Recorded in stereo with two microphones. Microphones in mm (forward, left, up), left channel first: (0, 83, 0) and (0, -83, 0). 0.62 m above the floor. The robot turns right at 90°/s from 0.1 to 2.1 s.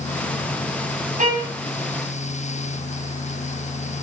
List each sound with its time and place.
1.2 s a violin: 50° right (ahead or behind), 4.5 m; by 1.5 s 25° right (ahead or behind), 4.5 m